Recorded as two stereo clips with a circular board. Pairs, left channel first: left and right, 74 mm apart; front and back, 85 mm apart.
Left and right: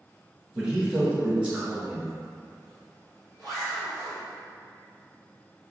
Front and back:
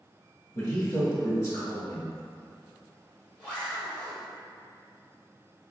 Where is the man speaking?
25° right, 1.3 m.